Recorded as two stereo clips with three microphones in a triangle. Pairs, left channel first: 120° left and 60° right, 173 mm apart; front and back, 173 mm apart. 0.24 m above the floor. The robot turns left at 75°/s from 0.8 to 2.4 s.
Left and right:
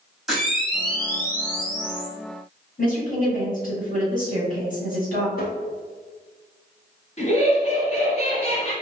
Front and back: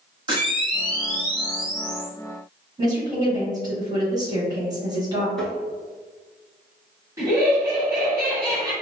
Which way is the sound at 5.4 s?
85° left.